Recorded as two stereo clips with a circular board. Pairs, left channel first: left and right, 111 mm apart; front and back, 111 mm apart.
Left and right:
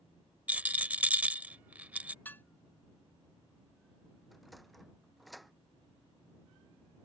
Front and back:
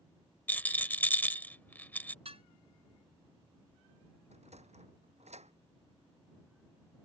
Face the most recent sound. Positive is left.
turn(degrees=180)